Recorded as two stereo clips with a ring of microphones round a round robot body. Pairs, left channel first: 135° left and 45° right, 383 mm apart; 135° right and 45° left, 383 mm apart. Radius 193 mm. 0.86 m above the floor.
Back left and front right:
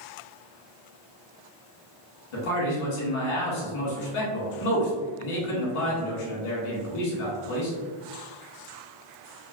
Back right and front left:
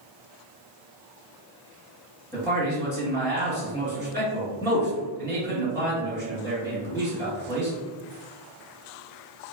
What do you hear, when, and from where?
2.3 s a man speaking: 140° left, 1.8 m